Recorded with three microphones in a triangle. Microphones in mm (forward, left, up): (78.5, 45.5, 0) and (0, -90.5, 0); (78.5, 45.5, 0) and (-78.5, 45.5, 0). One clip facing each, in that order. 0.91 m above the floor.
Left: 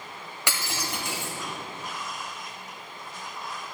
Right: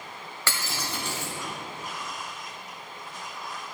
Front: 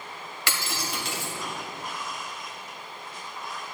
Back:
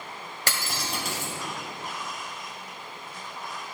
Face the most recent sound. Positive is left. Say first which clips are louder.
# left 1 dB, even
turn(degrees=135)